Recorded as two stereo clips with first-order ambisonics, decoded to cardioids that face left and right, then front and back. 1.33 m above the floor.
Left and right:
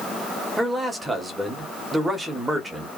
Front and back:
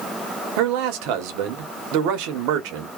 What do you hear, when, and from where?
0.6 s a man speaking: 175° right, 0.9 m